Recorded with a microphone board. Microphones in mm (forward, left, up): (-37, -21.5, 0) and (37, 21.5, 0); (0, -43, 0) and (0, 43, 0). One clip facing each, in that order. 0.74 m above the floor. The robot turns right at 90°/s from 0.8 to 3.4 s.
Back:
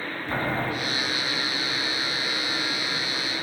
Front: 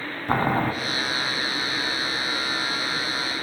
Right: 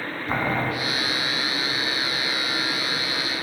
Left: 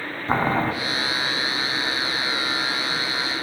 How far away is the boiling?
About 1.0 m.